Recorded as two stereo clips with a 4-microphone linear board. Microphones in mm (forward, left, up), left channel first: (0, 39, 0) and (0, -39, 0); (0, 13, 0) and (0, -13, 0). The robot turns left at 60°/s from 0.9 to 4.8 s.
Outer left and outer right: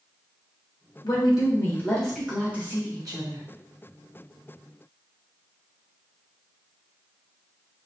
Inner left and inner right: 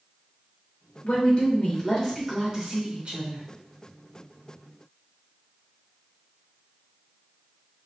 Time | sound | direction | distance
1.0 | a woman speaking | 65° left | 1.7 m